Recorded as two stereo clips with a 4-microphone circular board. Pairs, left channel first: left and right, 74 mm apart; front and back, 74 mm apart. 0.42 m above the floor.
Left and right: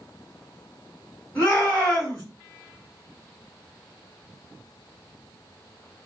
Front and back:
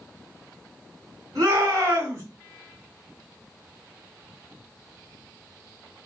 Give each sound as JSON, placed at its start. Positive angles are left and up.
{"t": 1.4, "sound": "a shout", "azimuth_deg": 155, "distance_m": 1.9}